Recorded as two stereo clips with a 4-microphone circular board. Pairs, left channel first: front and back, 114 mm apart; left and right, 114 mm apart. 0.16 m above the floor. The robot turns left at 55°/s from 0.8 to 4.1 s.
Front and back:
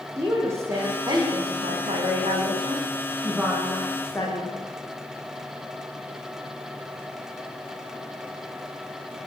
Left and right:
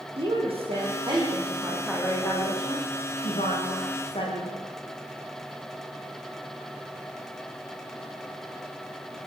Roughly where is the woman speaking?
Behind right.